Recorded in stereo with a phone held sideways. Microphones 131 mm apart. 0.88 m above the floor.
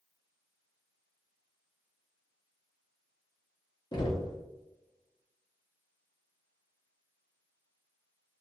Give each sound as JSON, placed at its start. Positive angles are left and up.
{"t": 3.9, "sound": "knocking", "side_deg": 35, "distance_m": 0.8}